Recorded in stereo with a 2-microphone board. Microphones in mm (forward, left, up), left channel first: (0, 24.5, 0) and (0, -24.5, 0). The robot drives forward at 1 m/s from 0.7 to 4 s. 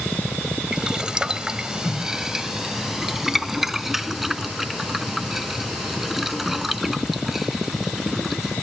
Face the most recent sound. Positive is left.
turn(degrees=-5)  # may be behind; listen again after turning